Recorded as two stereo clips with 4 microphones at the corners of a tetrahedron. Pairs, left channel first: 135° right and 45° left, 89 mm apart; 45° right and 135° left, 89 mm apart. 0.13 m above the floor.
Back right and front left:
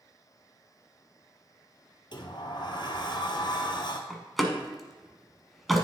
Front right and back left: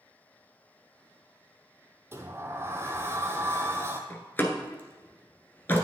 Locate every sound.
2.1 s a sliding door: 165° right, 1.0 m
4.1 s a door slam: 50° right, 1.1 m